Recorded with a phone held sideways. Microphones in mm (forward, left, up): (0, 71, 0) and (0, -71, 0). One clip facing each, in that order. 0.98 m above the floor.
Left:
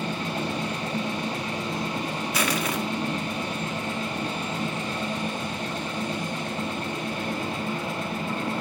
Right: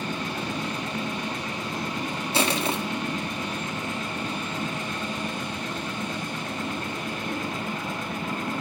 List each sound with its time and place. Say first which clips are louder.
0.0 s a machine running: left 2 dB; 35° left (ahead or behind), 4 m
2.3 s crushing: right 3 dB; 30° right (ahead or behind), 1.6 m